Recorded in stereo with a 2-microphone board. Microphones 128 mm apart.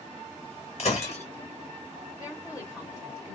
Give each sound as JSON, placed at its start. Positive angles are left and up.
{"t": 0.8, "sound": "breaking glass", "side_deg": 55, "distance_m": 1.0}
{"t": 2.2, "sound": "a woman speaking", "side_deg": 30, "distance_m": 1.8}